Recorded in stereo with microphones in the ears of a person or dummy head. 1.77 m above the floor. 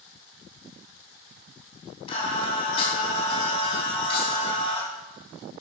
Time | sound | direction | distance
2.1 | singing | 35° left (ahead or behind) | 3.5 m